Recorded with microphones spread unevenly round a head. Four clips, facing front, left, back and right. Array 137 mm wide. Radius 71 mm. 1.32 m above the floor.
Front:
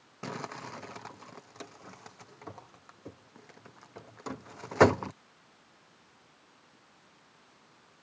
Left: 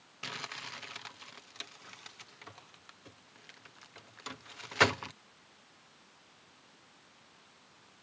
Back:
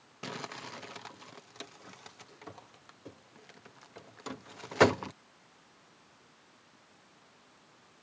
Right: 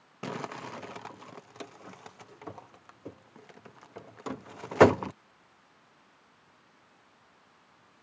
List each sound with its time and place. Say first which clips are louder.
0.2 s crumpling: right 8 dB, front 3 dB; 75° right